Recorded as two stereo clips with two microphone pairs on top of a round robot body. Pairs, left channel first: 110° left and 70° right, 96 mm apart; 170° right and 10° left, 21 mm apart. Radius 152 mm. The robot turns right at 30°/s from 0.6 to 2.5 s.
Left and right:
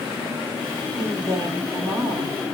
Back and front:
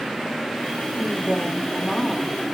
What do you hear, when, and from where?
0.9 s a woman speaking: 130° right, 3.5 m; by 2.4 s 85° right, 3.5 m